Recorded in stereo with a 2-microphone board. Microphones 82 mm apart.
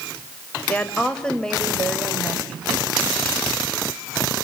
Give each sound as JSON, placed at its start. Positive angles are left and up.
{"t": 0.7, "sound": "a woman speaking", "side_deg": 15, "distance_m": 2.5}